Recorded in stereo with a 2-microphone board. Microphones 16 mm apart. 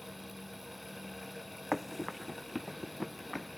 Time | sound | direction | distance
1.7 | running footsteps | 15° right (ahead or behind) | 0.9 m